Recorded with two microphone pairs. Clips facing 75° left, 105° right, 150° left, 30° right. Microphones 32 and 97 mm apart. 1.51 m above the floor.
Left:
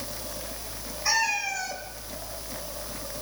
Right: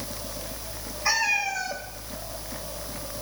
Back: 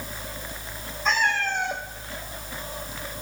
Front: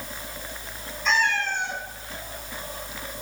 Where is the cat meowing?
175° right, 2 m.